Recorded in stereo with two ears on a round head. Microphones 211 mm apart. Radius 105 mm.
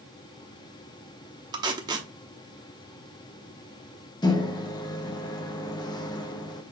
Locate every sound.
1.5 s tape being pulled: 20° right (ahead or behind), 0.8 m
4.2 s a microwave: 15° left (ahead or behind), 0.6 m